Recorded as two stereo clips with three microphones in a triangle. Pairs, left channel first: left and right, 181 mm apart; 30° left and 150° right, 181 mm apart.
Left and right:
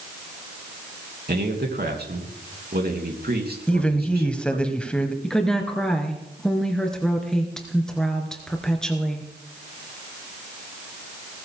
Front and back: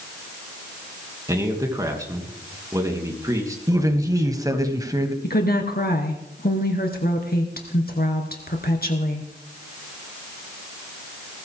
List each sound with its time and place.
1.3 s a man speaking: 80° right, 3 m
3.7 s a woman speaking: 165° left, 1.5 m
5.2 s a woman speaking: 5° left, 2.5 m